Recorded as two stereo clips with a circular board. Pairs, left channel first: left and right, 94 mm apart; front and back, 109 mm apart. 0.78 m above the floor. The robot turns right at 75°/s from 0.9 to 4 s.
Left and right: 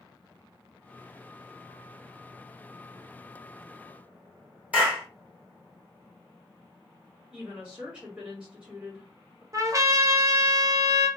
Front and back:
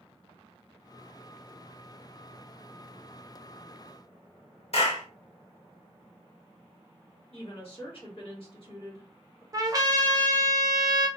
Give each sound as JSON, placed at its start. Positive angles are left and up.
{"t": 4.7, "sound": "a clap", "azimuth_deg": -15, "distance_m": 1.2}
{"t": 7.3, "sound": "a woman speaking", "azimuth_deg": -15, "distance_m": 1.5}
{"t": 9.5, "sound": "a trumpet", "azimuth_deg": -135, "distance_m": 0.5}